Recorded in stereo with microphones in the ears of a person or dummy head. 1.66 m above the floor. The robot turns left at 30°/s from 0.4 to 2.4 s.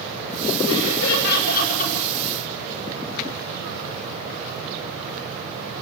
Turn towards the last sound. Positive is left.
turn(degrees=25)